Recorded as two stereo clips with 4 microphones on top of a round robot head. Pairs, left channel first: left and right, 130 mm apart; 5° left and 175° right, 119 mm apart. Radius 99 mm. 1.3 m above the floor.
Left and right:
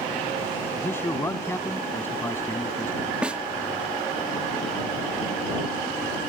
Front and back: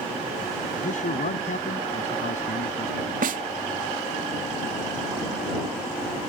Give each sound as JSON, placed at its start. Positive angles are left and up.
{"t": 0.8, "sound": "a man speaking", "azimuth_deg": 20}
{"t": 3.2, "sound": "a snare drum", "azimuth_deg": -175}